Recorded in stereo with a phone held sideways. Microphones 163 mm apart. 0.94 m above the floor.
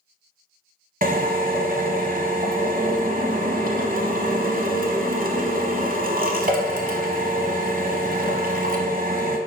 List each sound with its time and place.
1.0 s a drill: 60° right (ahead or behind), 0.8 m